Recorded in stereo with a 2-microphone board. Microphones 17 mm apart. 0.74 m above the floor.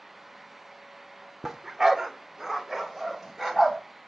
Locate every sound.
1.4 s a dog barking: 25° right (ahead or behind), 0.7 m